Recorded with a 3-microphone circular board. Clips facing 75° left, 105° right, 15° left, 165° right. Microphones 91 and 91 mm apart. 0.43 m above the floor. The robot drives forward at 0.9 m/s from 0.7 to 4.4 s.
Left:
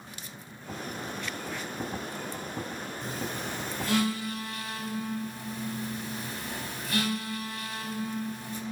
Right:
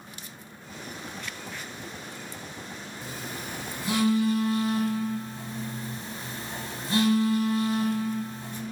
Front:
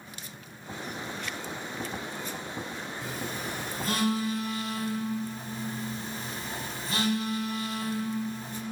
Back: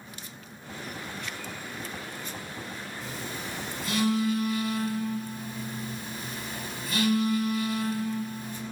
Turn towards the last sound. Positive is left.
turn(degrees=-45)